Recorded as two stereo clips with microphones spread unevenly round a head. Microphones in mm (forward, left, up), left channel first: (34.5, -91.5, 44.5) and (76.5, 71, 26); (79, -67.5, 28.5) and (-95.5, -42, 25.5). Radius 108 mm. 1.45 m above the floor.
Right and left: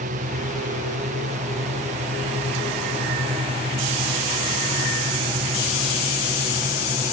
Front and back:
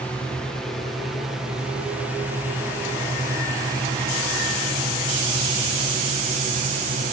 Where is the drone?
75° left; by 7.1 s 135° left.